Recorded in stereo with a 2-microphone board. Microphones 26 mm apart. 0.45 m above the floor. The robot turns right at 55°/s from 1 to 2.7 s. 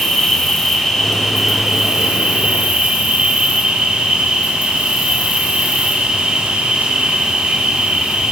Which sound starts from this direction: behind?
An insect, at 0.0 s.